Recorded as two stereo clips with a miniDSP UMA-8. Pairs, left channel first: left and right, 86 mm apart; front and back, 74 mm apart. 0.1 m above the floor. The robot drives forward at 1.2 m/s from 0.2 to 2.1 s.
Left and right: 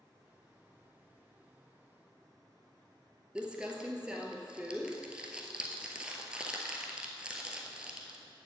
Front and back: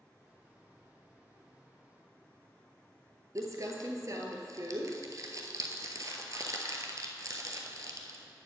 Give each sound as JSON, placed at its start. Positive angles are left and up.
{"t": 3.4, "sound": "crumpling", "azimuth_deg": -165, "distance_m": 1.0}